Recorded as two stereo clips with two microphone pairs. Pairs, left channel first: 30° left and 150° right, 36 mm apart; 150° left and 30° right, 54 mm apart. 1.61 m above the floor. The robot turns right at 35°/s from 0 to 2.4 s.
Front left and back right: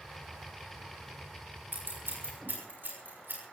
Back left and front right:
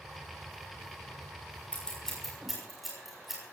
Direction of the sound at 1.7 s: 145° right.